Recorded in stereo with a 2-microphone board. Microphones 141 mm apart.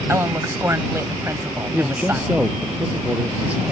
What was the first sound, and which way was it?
A woman speaking, 20° right (ahead or behind).